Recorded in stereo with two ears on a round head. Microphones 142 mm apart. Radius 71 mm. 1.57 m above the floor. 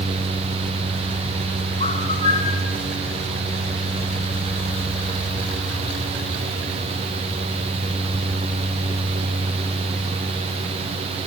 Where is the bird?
35° left (ahead or behind), 5 m.